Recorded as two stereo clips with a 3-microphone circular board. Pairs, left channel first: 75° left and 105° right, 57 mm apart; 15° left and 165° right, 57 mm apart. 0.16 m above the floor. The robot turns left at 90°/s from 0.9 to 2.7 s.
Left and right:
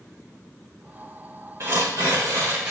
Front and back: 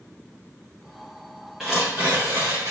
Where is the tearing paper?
80° right, 5 m; by 2.7 s straight behind, 5 m.